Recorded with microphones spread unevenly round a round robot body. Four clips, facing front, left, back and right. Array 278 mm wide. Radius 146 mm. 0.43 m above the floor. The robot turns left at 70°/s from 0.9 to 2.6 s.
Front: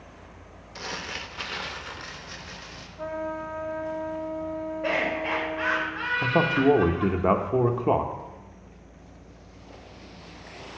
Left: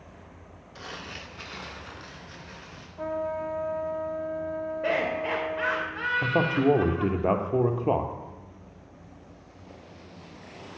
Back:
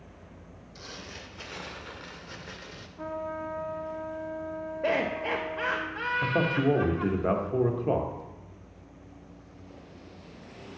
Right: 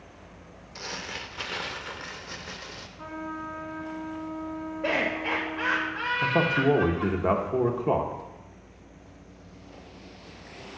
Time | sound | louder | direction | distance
0.8 | crumpling | right 3 dB, front 9 dB | 20° right | 0.8 m
3.0 | a trumpet | left 7 dB, front 3 dB | 90° left | 1.3 m
4.8 | laughter | even, even | straight behind | 2 m
6.2 | a man speaking | even, front 5 dB | 5° left | 0.8 m